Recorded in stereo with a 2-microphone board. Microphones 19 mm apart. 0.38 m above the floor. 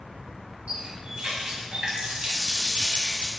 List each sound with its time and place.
0.7 s a running tap: 60° right (ahead or behind), 1.7 m